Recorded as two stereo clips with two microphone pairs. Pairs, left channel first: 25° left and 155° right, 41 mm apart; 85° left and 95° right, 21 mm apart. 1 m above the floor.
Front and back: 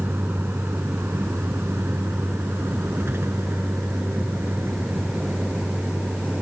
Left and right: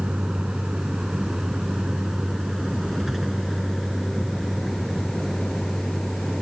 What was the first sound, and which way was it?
A vehicle, 130° right.